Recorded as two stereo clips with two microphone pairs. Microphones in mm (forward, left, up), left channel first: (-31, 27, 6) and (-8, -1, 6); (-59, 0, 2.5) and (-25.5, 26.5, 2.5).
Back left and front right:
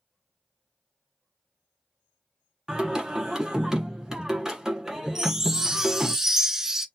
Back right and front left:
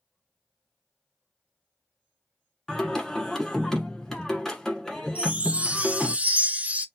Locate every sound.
2.7 s singing: 95° right, 1.3 m
5.2 s a chime: 20° left, 0.5 m